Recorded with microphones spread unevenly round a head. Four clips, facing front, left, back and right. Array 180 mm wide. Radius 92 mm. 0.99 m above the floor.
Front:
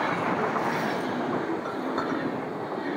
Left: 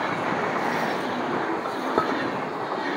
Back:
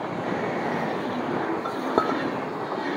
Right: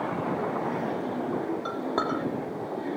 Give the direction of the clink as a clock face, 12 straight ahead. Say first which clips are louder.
Left 4 dB, back 4 dB; 7 o'clock.